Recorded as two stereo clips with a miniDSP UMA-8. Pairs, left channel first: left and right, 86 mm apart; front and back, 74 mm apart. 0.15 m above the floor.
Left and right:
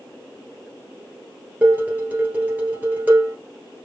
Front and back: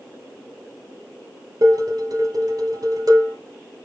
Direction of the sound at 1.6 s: 160° right.